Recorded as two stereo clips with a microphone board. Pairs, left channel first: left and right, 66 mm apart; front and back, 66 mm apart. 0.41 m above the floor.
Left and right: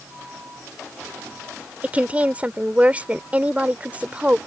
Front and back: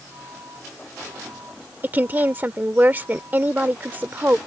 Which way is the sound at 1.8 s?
135° right.